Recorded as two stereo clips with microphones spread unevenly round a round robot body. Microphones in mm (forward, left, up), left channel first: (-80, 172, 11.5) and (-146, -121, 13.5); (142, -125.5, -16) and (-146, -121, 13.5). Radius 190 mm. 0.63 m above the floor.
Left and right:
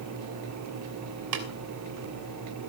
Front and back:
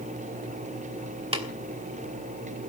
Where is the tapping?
110° right, 3 m.